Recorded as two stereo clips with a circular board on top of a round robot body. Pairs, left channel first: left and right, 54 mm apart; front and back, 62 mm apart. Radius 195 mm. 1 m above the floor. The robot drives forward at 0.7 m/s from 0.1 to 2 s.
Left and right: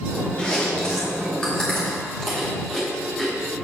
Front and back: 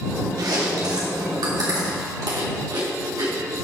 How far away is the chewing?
About 1.0 m.